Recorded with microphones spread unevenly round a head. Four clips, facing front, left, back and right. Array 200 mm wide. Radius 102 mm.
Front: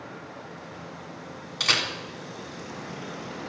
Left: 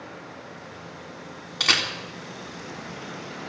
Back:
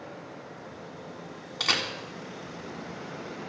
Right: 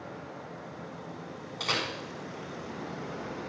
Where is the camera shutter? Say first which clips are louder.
Left 5 dB, front 2 dB; 105° left, 3 m.